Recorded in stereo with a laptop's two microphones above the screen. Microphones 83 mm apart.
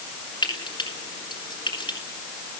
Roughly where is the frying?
Left.